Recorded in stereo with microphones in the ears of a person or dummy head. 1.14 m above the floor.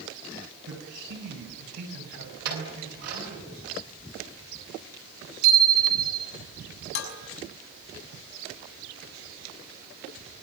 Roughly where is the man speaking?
Right.